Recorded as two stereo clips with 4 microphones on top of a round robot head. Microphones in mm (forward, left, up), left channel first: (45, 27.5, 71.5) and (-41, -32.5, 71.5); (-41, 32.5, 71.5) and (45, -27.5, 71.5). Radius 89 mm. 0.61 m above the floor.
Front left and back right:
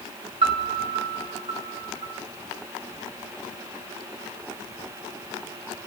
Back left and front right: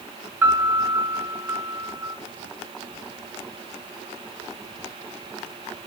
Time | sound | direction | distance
0.4 | a piano | 105° right | 4 m